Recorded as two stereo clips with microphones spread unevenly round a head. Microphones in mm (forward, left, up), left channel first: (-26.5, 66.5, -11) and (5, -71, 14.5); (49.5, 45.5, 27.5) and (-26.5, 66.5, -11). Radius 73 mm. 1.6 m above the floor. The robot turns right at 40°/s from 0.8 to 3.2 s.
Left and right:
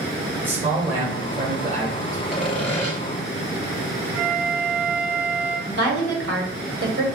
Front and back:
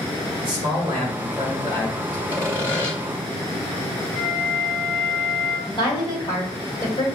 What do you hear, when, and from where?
0.4 s a man speaking: 155° right, 1.4 m; by 2.2 s 95° right, 1.4 m
2.3 s sawing: 5° left, 0.9 m; by 2.9 s 30° left, 0.9 m
4.1 s a flute: 60° right, 1.7 m
5.7 s a woman speaking: 70° right, 1.3 m